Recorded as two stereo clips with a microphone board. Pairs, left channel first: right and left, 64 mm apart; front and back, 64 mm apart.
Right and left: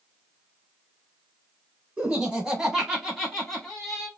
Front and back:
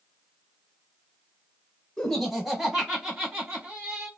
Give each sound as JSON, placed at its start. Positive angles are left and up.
{"t": 2.0, "sound": "laughter", "azimuth_deg": 80, "distance_m": 1.7}